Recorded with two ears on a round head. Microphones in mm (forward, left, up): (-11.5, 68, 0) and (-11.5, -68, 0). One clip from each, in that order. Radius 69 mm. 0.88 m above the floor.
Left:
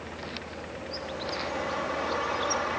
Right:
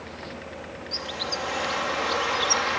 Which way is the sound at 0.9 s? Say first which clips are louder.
Right 5 dB; 65° right (ahead or behind).